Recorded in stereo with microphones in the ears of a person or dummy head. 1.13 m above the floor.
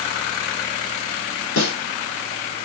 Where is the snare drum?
80° left, 2.5 m.